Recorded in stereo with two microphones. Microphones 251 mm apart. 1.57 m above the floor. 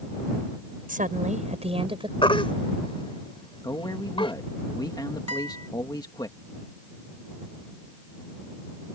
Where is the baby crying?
20° left (ahead or behind).